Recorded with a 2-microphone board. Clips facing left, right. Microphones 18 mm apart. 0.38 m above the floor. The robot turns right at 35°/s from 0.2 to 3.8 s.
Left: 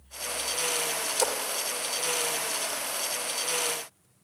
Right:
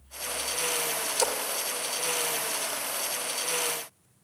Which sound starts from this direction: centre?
A splash, at 1.2 s.